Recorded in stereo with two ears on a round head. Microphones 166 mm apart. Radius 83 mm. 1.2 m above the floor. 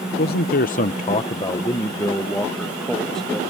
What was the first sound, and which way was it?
A man speaking, 55° left (ahead or behind).